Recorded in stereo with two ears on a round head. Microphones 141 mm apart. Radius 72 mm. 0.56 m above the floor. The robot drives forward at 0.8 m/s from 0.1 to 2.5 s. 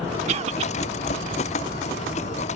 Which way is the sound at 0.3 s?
45° right (ahead or behind).